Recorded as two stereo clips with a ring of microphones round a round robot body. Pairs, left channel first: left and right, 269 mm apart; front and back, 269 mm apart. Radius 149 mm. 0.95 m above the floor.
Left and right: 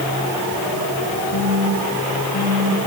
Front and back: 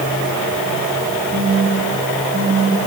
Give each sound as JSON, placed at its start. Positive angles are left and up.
{"t": 1.3, "sound": "a phone buzzing", "azimuth_deg": 120, "distance_m": 8.0}